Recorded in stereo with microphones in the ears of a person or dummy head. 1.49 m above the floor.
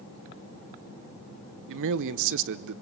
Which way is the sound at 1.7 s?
65° right (ahead or behind).